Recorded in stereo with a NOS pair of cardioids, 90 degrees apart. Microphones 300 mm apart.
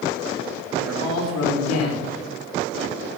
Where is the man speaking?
70° left, 6 m.